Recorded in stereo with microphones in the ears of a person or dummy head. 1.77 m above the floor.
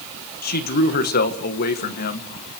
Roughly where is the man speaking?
Left.